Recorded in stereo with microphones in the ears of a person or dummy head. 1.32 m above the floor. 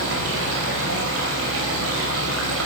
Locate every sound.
0.0 s running water: 80° right, 4.5 m